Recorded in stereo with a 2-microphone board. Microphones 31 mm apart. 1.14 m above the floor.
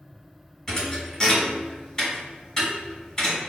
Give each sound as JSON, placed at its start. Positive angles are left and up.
{"t": 0.7, "sound": "a thud", "side_deg": 15, "distance_m": 1.8}